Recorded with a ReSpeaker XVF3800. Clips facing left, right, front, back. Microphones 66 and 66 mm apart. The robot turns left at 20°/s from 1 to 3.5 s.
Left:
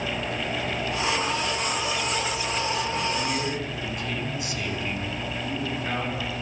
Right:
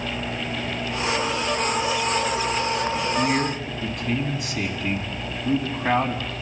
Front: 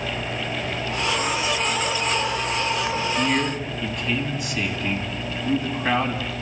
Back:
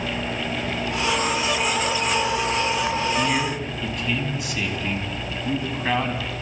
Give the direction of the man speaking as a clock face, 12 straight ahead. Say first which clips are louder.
Right 5 dB, even; 3 o'clock.